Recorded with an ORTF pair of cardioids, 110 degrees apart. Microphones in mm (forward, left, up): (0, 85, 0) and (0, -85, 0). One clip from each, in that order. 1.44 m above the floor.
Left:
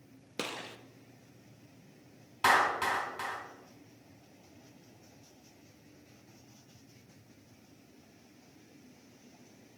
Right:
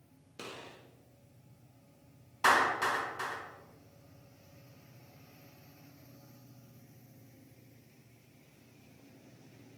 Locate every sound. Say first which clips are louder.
0.4 s a gunshot: left 7 dB; 55° left, 0.5 m
2.4 s a clap: even; 20° left, 3 m